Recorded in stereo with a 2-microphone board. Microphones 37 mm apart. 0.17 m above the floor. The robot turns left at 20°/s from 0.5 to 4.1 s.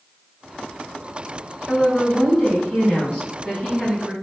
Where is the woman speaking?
80° left, 1.5 m; by 4.1 s 30° left, 1.5 m.